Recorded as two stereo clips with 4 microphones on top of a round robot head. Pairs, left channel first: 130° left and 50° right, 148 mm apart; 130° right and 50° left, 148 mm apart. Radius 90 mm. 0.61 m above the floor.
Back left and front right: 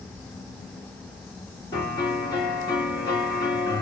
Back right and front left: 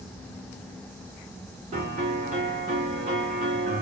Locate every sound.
1.7 s a piano: 75° left, 2 m